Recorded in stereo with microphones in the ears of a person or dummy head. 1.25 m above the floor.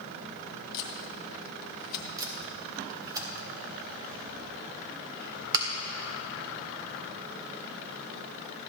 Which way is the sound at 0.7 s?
55° left (ahead or behind).